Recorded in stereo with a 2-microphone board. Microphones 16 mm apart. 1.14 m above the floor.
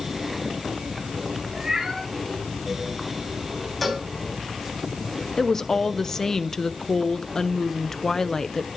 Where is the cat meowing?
35° right (ahead or behind), 4 m.